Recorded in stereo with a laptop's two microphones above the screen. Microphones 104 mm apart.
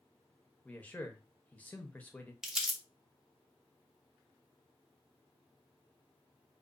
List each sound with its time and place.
0.7 s a man speaking: 15° left (ahead or behind), 0.8 m
2.4 s crumpling: 5° right (ahead or behind), 0.8 m